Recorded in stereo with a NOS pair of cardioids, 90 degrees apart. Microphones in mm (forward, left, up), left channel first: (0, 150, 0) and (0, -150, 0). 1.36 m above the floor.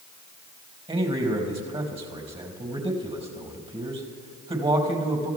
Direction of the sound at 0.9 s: 20° right.